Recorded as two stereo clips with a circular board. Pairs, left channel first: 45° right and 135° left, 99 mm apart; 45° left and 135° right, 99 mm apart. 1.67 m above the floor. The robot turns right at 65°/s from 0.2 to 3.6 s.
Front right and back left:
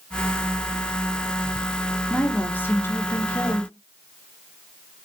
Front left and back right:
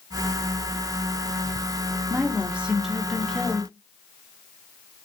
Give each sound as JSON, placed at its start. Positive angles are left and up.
{"t": 2.1, "sound": "a woman speaking", "azimuth_deg": -105, "distance_m": 0.5}